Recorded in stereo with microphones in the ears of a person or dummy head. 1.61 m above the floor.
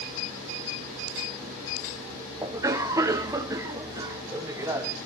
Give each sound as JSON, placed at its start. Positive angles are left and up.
{"t": 2.4, "sound": "a cough", "side_deg": -15, "distance_m": 1.2}